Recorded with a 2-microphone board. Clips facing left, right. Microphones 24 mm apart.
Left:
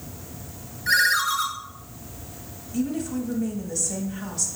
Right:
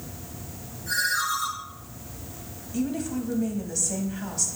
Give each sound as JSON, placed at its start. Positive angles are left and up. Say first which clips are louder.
{"t": 0.9, "sound": "a ringtone", "louder": "left 6 dB", "side_deg": 65, "distance_m": 1.7}
{"t": 2.7, "sound": "a woman speaking", "louder": "left 1 dB", "side_deg": -10, "distance_m": 1.3}